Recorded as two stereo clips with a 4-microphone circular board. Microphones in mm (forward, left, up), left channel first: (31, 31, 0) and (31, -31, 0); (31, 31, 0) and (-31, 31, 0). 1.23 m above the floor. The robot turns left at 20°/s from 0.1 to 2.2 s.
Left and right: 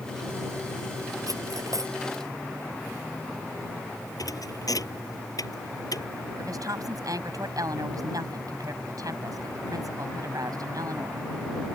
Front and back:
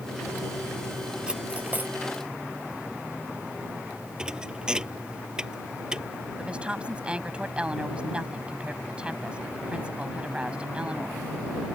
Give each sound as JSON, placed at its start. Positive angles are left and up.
{"t": 1.3, "sound": "cutlery clinking", "azimuth_deg": -105}
{"t": 4.2, "sound": "a thud", "azimuth_deg": 105}
{"t": 6.4, "sound": "a woman speaking", "azimuth_deg": -105}